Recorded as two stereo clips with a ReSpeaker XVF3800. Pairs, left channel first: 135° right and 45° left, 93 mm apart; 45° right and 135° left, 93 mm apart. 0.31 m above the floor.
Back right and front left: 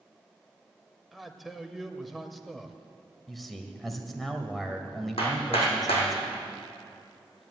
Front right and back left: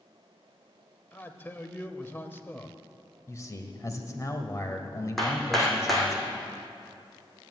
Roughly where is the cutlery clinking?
No cutlery clinking in this recording.